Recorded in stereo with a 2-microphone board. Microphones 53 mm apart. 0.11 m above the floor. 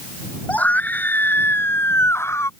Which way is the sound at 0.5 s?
30° left (ahead or behind).